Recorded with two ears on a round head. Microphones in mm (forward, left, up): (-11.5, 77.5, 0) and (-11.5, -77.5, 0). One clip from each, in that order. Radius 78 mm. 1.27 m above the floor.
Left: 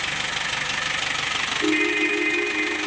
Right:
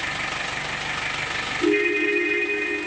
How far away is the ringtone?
About 1.5 m.